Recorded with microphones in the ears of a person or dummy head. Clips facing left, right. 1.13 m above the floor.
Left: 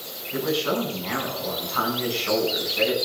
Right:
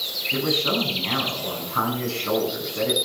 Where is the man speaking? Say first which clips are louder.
Even; 40° right (ahead or behind), 9 m.